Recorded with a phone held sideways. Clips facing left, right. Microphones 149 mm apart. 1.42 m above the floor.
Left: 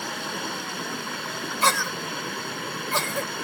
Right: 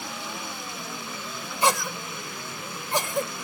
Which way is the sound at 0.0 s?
65° left (ahead or behind).